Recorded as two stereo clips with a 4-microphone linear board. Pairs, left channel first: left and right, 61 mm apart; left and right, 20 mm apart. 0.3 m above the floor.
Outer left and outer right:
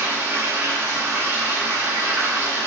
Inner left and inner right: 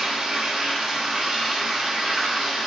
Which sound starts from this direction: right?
Running water, at 0.0 s.